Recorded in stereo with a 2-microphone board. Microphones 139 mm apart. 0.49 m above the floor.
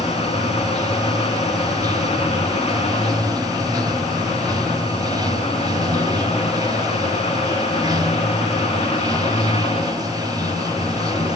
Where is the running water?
30° right (ahead or behind), 1.7 m.